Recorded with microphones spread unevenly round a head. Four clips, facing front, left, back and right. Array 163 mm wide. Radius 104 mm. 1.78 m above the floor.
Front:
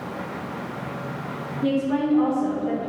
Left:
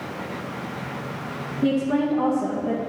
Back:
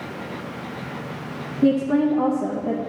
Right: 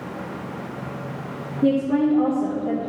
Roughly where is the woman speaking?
Behind.